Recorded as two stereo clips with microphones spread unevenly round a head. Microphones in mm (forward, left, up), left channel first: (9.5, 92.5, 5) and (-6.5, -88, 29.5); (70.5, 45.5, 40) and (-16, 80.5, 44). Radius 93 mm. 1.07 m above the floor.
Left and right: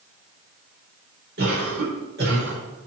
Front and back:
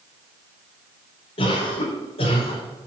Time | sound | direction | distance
1.4 | a cough | 60° right | 4.5 m